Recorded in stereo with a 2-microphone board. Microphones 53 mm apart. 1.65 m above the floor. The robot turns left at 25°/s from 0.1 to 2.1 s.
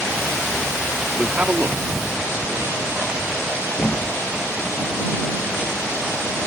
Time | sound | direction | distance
1.2 | a man speaking | 25° right (ahead or behind) | ?
3.8 | a thud | 40° left (ahead or behind) | ?